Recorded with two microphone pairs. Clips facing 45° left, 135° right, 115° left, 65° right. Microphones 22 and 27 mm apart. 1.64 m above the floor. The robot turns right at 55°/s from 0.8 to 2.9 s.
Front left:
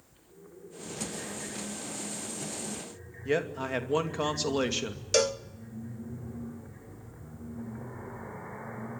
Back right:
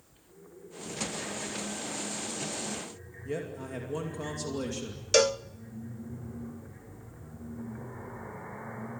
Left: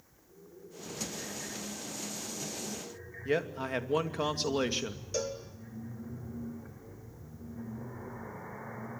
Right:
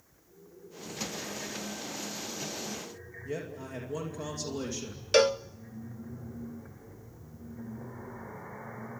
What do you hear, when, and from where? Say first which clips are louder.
3.2 s a man speaking: front left 7 dB, left 7 dB; 85° left, 2.5 m
5.1 s a cowbell: back right 3 dB, right 13 dB; 60° right, 0.6 m